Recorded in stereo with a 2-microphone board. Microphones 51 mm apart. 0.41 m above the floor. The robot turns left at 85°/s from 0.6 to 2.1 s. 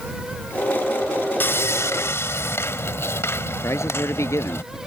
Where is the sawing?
130° left; by 4.6 s 70° left.